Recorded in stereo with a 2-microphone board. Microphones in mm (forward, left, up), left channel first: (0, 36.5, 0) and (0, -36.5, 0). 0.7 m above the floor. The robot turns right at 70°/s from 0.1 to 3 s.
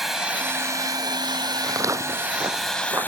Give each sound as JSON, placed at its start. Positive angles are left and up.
{"t": 0.0, "sound": "running water", "azimuth_deg": -175}
{"t": 1.6, "sound": "footsteps", "side_deg": -50}